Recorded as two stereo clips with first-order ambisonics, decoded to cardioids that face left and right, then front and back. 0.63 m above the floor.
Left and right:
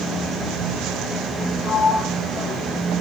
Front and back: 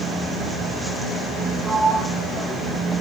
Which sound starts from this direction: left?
A sliding door, at 1.6 s.